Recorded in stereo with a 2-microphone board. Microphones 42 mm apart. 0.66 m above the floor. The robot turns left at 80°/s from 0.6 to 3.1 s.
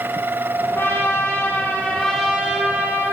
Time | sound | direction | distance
0.8 | a trumpet | 120° left | 6 m